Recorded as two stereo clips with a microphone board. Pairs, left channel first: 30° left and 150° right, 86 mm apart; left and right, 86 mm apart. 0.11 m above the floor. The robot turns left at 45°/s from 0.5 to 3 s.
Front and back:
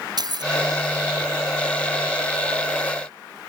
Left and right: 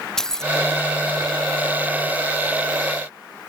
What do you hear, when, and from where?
0.2 s keys jangling: 175° left